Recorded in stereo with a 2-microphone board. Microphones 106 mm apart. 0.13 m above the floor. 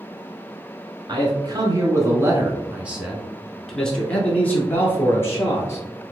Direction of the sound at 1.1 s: 40° right (ahead or behind).